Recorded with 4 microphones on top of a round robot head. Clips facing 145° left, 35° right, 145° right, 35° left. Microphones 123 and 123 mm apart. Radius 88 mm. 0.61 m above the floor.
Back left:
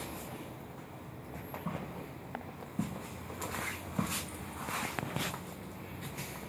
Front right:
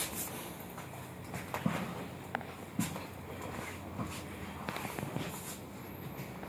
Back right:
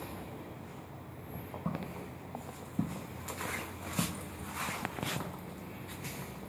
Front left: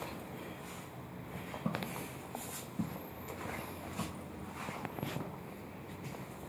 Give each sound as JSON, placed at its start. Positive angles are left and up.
{"t": 1.6, "sound": "footsteps", "azimuth_deg": -40, "distance_m": 0.9}